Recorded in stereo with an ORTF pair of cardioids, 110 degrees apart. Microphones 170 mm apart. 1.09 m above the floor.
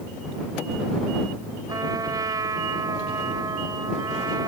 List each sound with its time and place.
1.7 s a trumpet: 25° right